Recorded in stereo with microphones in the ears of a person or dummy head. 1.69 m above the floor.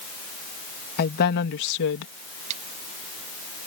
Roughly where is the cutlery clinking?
Centre.